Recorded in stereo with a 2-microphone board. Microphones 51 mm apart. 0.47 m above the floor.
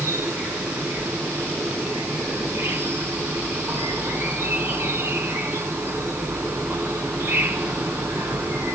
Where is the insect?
50° right (ahead or behind), 4 m.